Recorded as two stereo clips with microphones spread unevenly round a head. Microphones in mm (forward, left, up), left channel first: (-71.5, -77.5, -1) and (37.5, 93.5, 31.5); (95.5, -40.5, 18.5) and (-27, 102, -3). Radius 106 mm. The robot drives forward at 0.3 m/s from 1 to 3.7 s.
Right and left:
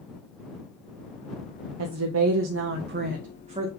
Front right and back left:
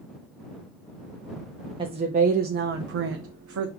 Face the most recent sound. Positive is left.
turn(degrees=120)